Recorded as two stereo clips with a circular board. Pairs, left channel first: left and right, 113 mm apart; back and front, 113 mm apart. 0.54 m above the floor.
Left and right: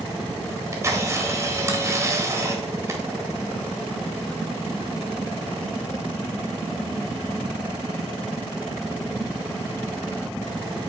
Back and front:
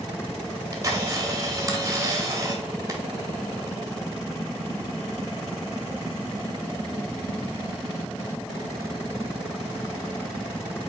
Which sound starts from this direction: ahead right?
A camera shutter, at 0.5 s.